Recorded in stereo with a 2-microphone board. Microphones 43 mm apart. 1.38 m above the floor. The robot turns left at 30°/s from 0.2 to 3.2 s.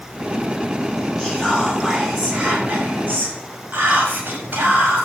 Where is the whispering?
15° left, 8.5 m; by 5.1 s 45° right, 8.5 m.